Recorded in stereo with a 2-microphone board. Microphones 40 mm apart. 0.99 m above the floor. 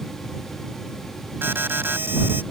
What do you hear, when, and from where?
1.4 s an alarm: 65° right (ahead or behind)